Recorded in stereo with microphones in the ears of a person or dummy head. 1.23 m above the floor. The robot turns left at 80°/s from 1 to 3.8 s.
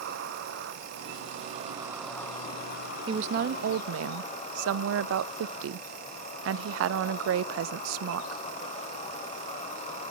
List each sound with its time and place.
0.0 s an insect: 90° right, 2 m; by 10.1 s 45° left, 2 m
3.1 s a woman speaking: 25° right, 0.5 m; by 8.4 s 80° right, 0.5 m